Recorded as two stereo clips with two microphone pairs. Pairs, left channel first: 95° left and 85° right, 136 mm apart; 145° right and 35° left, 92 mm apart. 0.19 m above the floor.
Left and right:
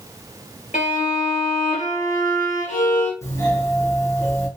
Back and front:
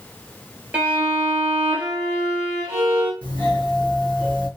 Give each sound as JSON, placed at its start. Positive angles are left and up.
{"t": 0.7, "sound": "a violin", "azimuth_deg": 110, "distance_m": 1.7}
{"t": 3.2, "sound": "a doorbell", "azimuth_deg": 150, "distance_m": 2.5}